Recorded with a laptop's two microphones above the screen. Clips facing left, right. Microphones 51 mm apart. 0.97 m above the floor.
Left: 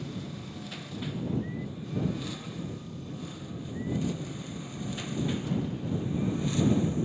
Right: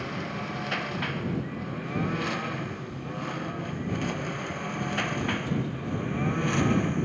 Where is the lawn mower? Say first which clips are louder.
Right 6 dB; 60° right (ahead or behind); by 7.0 s 50° right (ahead or behind).